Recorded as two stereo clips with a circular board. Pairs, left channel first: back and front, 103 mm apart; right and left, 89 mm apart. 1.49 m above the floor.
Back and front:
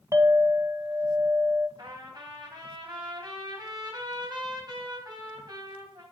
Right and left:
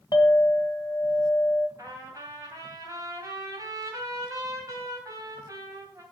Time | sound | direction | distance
0.1 | a clink | 55° right | 1.2 m
1.8 | a trumpet | 45° left | 3 m